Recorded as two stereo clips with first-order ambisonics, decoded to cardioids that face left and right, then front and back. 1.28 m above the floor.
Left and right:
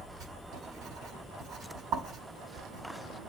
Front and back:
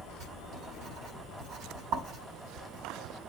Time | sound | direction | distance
0.2 | writing | 135° right | 5 m